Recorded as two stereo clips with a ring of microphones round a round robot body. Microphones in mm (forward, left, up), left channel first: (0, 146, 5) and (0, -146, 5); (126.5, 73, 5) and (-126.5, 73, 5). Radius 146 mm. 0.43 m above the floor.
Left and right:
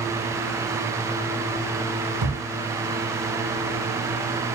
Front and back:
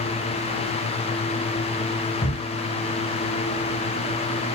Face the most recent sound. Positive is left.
turn(degrees=-70)